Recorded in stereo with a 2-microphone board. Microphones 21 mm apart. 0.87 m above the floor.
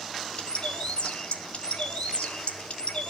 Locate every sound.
0.4 s a bird: 60° left (ahead or behind), 1.2 m